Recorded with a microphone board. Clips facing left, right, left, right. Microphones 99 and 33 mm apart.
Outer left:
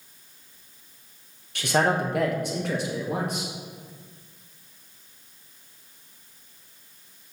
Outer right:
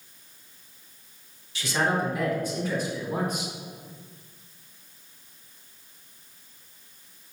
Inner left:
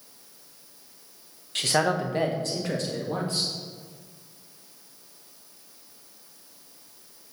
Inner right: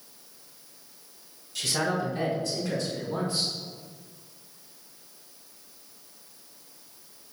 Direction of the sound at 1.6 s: 60° left (ahead or behind).